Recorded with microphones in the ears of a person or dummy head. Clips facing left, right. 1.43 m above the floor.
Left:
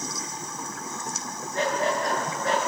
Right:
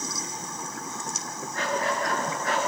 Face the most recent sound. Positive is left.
turn(degrees=35)  # may be behind; listen again after turning